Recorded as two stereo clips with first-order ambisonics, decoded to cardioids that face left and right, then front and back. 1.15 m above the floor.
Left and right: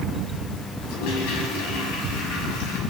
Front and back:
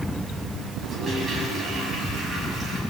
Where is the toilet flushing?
100° left, 7 m.